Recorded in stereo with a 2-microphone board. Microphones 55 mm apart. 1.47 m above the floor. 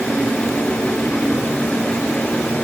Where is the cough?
I don't hear a cough.